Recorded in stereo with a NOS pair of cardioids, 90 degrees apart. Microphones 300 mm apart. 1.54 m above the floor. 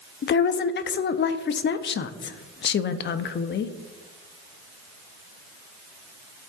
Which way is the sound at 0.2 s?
40° left.